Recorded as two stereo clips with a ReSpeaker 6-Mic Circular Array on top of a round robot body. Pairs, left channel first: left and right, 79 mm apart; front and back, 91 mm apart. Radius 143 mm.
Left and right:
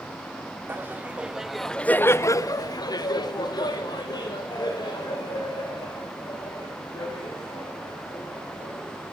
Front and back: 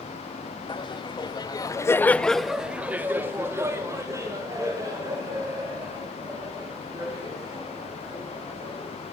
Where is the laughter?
25° right, 1.0 m; by 9.0 s 130° left, 4.5 m.